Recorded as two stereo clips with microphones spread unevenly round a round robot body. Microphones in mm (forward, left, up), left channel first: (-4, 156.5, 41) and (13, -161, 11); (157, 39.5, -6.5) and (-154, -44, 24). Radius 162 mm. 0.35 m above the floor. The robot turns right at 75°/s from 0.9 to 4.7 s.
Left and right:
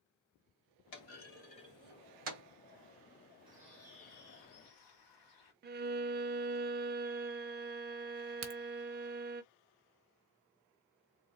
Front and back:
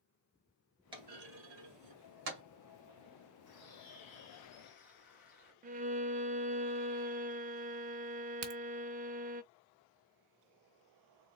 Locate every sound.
0.9 s a clunk: 120° left, 2.5 m; by 2.4 s 130° right, 2.5 m
3.5 s a bird: 15° right, 2.5 m; by 5.5 s 75° left, 2.5 m
5.6 s a violin: 105° right, 0.5 m
8.4 s a crack: 125° right, 1.2 m